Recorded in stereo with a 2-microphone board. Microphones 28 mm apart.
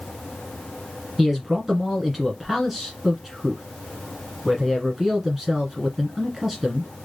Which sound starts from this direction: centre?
A man speaking, at 1.2 s.